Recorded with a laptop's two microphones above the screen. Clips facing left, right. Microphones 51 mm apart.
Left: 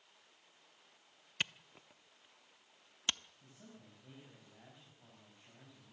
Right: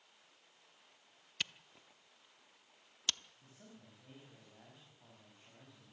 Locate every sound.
1.4 s a camera shutter: 25° left (ahead or behind), 0.6 m
3.4 s a man speaking: 10° right (ahead or behind), 5.5 m